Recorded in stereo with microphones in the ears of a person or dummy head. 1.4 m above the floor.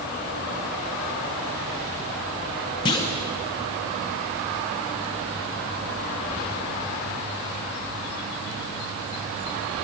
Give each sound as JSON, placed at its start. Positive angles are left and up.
{"t": 2.9, "sound": "a clunk", "side_deg": 25, "distance_m": 0.6}